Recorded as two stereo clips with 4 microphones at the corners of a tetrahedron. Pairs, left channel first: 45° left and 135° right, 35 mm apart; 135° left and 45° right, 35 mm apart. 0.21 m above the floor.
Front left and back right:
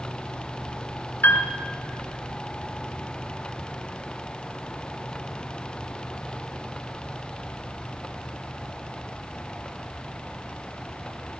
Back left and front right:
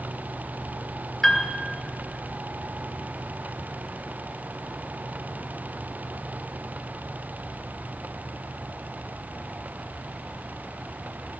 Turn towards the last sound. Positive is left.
turn(degrees=60)